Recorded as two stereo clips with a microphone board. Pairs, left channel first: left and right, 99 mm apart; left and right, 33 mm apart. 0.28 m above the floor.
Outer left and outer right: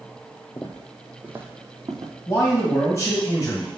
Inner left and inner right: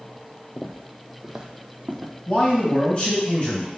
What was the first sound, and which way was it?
Footsteps, 30° left (ahead or behind).